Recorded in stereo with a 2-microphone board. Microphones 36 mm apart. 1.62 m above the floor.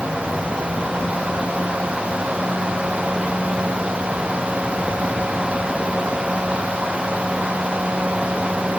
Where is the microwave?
No microwave in this recording.